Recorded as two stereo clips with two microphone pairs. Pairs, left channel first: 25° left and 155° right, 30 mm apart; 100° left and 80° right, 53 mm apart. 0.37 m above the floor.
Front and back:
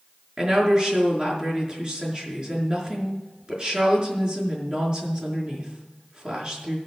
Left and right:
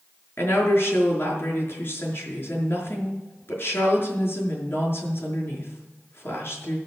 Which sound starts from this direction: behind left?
A woman speaking, at 0.4 s.